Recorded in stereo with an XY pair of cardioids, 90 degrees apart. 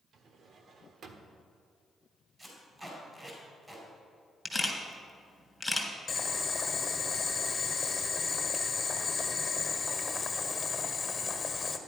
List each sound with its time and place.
0.1 s a drawer: 65° right, 1.3 m
2.4 s tape being pulled: 20° right, 5 m
4.5 s a camera shutter: 5° left, 2.5 m
6.1 s boiling: 35° left, 1.5 m